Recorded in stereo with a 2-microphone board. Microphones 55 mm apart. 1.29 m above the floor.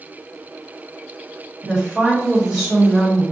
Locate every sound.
1.6 s a woman speaking: 15° right (ahead or behind), 1.6 m